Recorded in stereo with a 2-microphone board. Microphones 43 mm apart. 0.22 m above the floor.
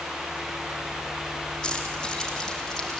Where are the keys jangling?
15° left (ahead or behind), 6 m; by 3.0 s 10° left (ahead or behind), 5.5 m.